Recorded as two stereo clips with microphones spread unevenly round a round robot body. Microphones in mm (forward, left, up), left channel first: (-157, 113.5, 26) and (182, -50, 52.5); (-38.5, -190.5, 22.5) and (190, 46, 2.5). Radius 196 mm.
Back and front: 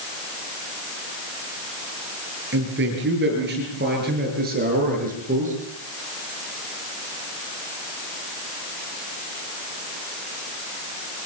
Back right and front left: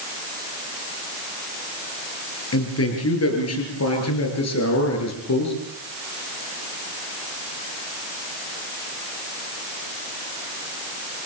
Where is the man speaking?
90° right, 9.5 m; by 5.5 s 95° right, 8.5 m.